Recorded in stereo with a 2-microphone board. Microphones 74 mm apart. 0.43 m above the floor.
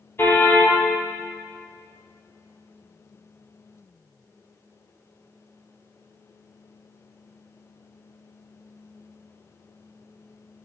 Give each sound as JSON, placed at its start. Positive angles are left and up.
{"t": 0.2, "sound": "a car horn", "side_deg": 30, "distance_m": 4.5}